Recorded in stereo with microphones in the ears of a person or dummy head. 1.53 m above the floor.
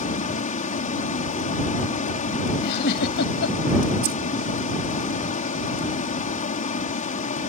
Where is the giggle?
60° left (ahead or behind).